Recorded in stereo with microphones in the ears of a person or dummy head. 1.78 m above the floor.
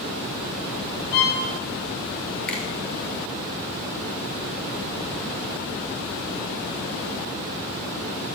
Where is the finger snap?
5° left (ahead or behind), 4.5 m.